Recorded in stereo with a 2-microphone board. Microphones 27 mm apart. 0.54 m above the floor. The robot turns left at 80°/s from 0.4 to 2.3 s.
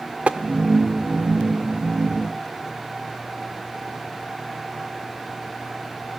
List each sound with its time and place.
0.3 s tapping: 55° right (ahead or behind), 0.5 m